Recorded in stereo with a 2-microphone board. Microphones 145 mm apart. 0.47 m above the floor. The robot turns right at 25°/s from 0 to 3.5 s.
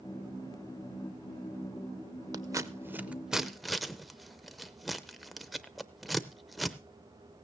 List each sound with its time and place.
2.3 s scissors: 25° right (ahead or behind), 0.6 m; by 6.8 s centre (ahead or behind), 0.6 m